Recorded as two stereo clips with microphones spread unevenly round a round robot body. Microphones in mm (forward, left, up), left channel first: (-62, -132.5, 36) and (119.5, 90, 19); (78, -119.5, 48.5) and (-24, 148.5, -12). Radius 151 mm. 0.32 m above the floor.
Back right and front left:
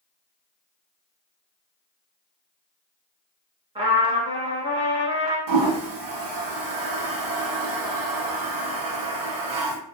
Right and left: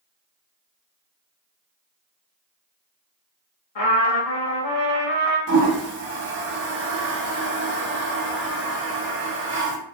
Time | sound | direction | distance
3.8 | a trumpet | 25° right | 0.9 m
5.5 | a toilet flushing | 65° left | 0.7 m